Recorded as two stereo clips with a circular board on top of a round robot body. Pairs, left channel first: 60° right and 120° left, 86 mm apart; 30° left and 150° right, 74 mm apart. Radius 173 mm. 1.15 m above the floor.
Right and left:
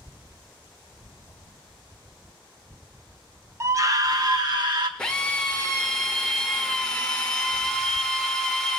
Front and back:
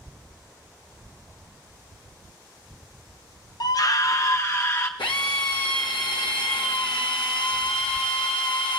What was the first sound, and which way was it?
A scream, 65° left.